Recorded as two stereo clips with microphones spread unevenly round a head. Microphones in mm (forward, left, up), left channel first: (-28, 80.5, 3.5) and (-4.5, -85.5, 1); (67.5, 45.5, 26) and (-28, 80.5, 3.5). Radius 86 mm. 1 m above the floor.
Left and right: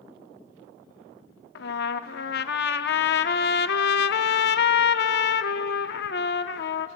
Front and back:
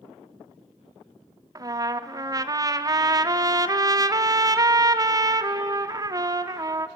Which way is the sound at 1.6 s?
100° left.